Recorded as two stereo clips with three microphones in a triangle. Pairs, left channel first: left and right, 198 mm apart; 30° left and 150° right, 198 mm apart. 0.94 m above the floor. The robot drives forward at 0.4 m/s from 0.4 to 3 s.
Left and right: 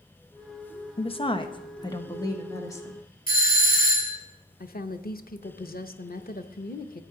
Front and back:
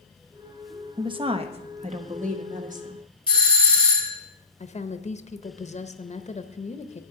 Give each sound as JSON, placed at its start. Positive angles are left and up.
{"t": 1.0, "sound": "a woman speaking", "azimuth_deg": 150, "distance_m": 0.7}
{"t": 3.3, "sound": "a doorbell", "azimuth_deg": 85, "distance_m": 1.3}
{"t": 4.6, "sound": "a woman speaking", "azimuth_deg": 70, "distance_m": 0.7}